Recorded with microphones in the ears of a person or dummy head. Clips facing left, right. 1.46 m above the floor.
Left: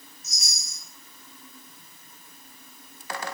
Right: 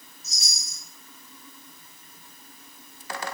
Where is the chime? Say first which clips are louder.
Right 2 dB; 25° right (ahead or behind), 2 m.